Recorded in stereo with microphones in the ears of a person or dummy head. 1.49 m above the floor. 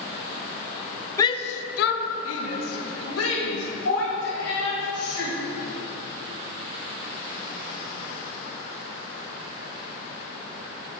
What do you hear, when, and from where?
1.2 s a shout: 20° left (ahead or behind), 0.7 m; by 5.3 s 75° left (ahead or behind), 4.5 m